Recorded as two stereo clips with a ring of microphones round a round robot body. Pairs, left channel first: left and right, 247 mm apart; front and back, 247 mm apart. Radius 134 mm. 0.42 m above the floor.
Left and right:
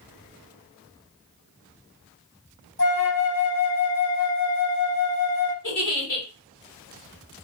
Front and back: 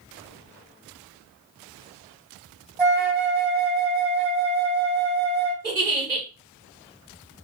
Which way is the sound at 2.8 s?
100° left.